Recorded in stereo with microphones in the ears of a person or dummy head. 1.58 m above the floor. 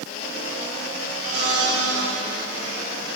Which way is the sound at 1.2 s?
85° right.